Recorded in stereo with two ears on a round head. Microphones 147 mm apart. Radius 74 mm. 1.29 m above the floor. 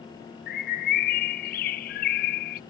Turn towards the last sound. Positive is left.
turn(degrees=55)  # may be behind; listen again after turning